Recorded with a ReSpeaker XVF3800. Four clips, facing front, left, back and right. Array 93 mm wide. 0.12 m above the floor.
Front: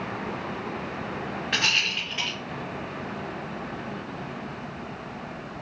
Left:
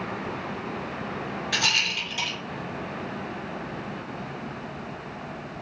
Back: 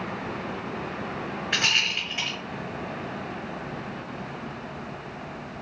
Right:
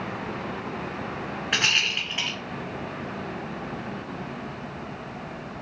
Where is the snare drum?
No snare drum in this recording.